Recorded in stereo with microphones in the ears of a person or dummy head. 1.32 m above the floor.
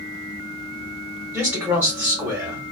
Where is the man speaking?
10° right (ahead or behind), 1.6 m.